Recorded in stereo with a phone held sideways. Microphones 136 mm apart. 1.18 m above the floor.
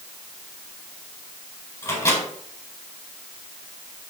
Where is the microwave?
25° left (ahead or behind), 4 m.